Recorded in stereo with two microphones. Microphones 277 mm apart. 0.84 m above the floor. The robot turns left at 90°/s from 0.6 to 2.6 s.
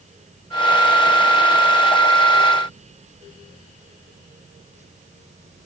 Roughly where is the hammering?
I don't hear hammering.